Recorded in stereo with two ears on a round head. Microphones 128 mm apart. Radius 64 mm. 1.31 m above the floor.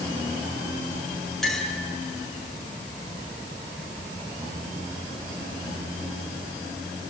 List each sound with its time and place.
1.4 s a clink: 5° left (ahead or behind), 5 m